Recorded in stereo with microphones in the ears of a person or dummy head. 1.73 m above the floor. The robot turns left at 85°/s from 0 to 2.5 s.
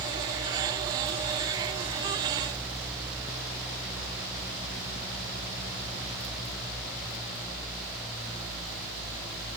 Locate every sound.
Only background noise.